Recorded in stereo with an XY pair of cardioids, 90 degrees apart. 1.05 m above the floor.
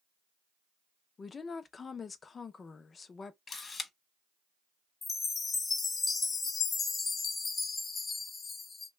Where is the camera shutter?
40° left, 0.9 m.